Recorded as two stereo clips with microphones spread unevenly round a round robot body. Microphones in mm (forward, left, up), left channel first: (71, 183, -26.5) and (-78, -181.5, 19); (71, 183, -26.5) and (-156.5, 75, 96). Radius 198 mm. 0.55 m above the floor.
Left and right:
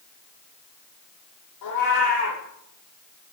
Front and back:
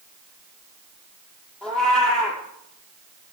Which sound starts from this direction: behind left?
A cat meowing, at 1.6 s.